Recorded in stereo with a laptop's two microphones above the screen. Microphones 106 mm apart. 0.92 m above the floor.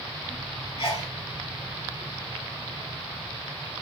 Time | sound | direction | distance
0.8 | a sneeze | 45° left (ahead or behind) | 0.8 m